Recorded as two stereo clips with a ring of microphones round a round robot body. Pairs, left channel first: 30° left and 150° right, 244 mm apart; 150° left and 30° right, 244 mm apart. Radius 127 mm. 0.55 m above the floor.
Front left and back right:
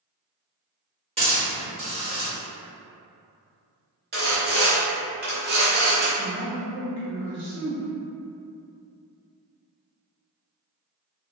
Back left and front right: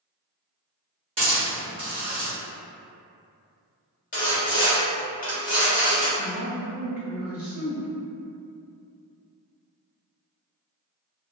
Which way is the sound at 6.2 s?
115° right.